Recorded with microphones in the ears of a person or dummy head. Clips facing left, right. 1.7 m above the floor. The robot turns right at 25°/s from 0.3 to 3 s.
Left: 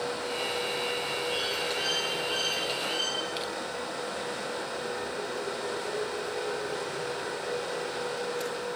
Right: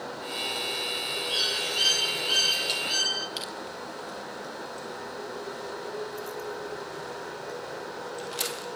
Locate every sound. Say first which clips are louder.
1.3 s a bird: left 3 dB; 70° right, 6.5 m; by 3.3 s 30° right, 6.5 m
3.4 s crushing: left 4 dB; centre (ahead or behind), 1.1 m